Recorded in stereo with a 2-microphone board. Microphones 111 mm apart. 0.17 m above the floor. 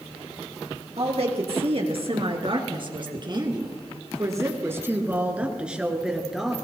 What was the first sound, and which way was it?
A woman speaking, 65° right (ahead or behind).